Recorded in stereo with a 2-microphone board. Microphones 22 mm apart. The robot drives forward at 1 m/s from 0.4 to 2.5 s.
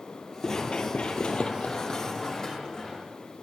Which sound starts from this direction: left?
Running footsteps, at 0.4 s.